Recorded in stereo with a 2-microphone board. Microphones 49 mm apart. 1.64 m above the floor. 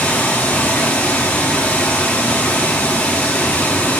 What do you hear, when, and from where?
0.0 s running water: 30° left (ahead or behind), 1.2 m